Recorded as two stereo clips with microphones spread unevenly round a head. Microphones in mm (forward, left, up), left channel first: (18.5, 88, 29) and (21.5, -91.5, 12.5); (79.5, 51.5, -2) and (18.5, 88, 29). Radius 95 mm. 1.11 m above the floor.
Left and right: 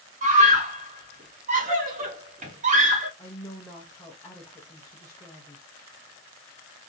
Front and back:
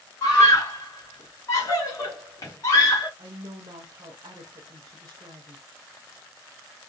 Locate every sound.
0.2 s a scream: 50° right, 1.5 m
3.2 s a woman speaking: 165° left, 0.6 m